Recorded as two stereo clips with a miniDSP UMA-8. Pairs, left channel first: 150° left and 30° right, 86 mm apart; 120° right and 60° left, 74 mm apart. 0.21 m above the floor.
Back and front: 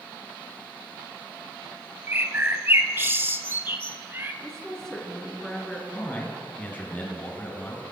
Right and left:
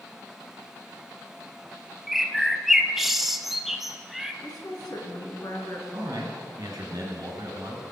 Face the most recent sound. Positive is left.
turn(degrees=80)